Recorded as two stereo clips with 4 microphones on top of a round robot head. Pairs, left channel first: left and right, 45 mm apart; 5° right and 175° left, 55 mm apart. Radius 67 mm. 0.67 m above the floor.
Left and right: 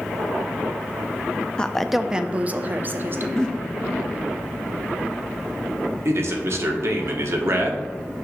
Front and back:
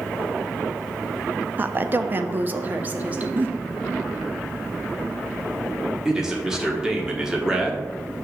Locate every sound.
1.6 s a woman speaking: 150° left, 0.5 m; by 3.3 s 120° right, 1.0 m
3.4 s a giggle: 155° left, 1.0 m
6.0 s a man speaking: 105° right, 1.3 m